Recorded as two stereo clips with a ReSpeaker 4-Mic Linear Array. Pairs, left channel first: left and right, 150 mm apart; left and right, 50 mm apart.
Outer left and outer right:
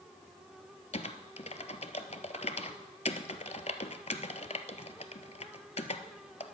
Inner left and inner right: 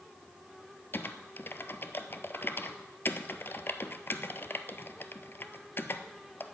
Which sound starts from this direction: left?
Typing on a keyboard, at 0.9 s.